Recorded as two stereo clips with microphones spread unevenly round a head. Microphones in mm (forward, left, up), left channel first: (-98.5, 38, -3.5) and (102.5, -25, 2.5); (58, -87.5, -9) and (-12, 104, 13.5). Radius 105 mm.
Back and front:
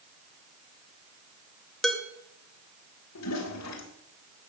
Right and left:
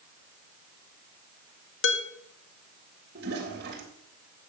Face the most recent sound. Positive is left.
turn(degrees=155)